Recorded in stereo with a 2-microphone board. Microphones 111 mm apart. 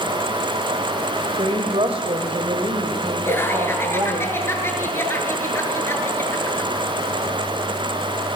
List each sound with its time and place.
1.4 s a woman speaking: 60° right (ahead or behind), 2.5 m
3.2 s laughter: 20° left (ahead or behind), 7 m